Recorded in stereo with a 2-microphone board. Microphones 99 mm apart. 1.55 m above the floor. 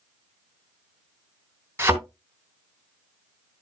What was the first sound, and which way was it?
A thud, 25° right (ahead or behind).